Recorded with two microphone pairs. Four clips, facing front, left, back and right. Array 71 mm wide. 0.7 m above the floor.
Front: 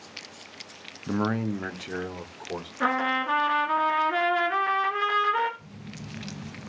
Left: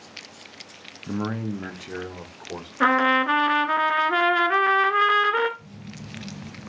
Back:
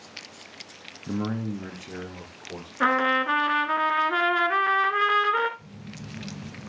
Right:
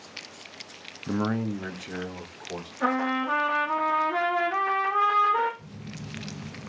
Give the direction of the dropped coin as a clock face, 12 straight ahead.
I don't hear a dropped coin.